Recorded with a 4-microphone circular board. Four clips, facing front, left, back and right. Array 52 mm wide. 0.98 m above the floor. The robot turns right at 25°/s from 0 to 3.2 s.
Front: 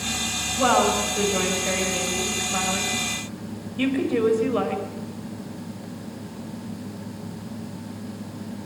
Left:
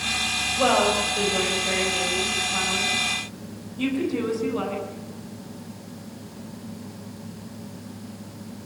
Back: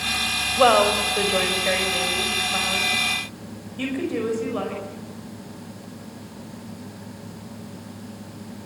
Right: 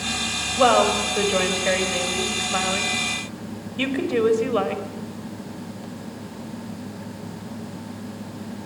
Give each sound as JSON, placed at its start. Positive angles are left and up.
{"t": 0.6, "sound": "a woman speaking", "azimuth_deg": -150, "distance_m": 5.0}